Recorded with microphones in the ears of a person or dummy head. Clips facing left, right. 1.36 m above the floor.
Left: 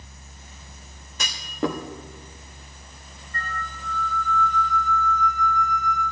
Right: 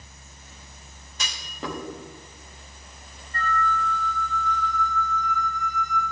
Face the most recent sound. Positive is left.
turn(degrees=-80)